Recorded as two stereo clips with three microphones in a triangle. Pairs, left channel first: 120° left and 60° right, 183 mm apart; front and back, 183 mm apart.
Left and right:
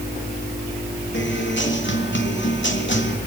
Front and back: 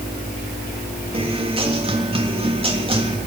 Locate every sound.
1.1 s a guitar: 120° left, 3.5 m